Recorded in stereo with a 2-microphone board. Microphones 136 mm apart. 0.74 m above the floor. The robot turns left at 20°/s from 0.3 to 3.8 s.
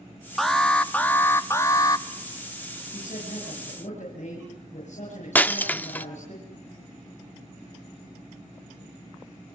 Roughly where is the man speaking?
Left.